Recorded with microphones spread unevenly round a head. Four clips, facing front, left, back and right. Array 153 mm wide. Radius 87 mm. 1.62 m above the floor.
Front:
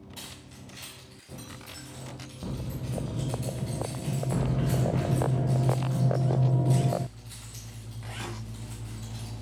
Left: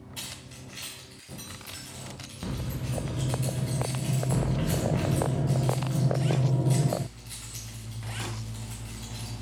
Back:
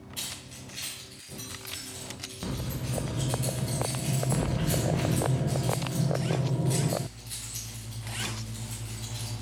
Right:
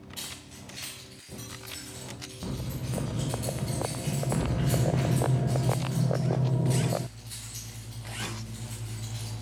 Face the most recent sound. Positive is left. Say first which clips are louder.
# even, back 2 dB
turn(degrees=30)